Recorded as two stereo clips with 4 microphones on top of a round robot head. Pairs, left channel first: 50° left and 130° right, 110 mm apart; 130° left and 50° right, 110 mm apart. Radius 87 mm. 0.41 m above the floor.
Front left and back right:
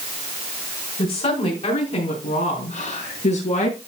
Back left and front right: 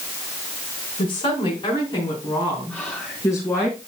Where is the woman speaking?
85° left, 5 m; by 3.7 s 60° left, 5.5 m.